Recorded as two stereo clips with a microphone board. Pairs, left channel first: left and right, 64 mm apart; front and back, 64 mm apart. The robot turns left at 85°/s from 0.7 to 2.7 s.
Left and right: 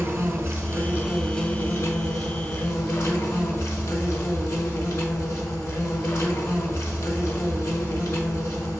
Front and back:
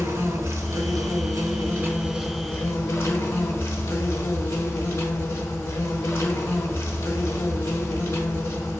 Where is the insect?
140° right, 1.0 m; by 8.8 s 50° left, 1.0 m.